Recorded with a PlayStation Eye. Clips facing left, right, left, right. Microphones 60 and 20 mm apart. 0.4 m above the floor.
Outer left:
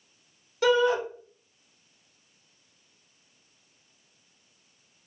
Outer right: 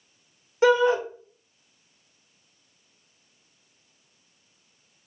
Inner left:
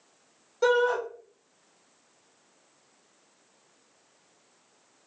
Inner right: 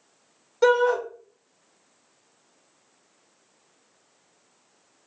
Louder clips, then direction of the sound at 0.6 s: Outer right 3 dB, inner right 4 dB; 30° right (ahead or behind).